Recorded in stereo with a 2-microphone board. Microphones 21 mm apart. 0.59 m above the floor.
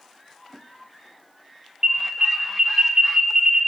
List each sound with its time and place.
1.8 s an alarm: 40° right (ahead or behind), 1.0 m